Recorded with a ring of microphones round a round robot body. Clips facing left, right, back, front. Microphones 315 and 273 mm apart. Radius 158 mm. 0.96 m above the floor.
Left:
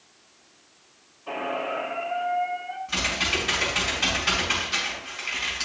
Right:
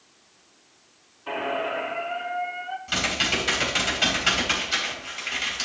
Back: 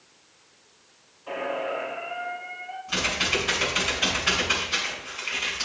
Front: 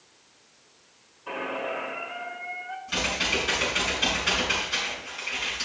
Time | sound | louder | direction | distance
1.3 | a squeak | right 1 dB, back 3 dB | 55° right | 0.9 m
2.9 | typing on a keyboard | right 2 dB, back 1 dB | 85° right | 3 m